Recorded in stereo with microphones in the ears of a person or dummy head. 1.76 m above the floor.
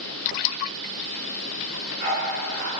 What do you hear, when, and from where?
1.7 s a dog barking: 50° right (ahead or behind), 7 m; by 2.7 s 55° right (ahead or behind), 7.5 m